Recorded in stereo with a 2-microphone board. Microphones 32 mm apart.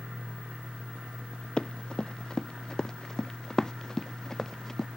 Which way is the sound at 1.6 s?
25° left (ahead or behind).